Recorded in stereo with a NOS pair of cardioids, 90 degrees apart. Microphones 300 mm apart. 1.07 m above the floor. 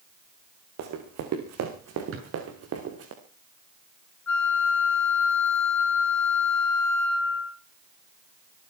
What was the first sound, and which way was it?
Running footsteps, 65° right.